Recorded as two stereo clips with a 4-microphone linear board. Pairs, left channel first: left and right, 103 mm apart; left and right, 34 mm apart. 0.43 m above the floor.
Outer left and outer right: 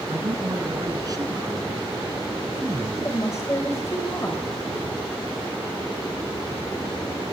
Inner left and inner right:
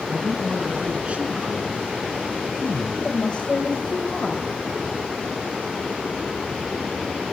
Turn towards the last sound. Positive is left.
turn(degrees=30)  # may be behind; listen again after turning